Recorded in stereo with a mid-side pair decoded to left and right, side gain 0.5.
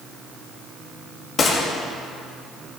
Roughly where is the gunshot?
Ahead left.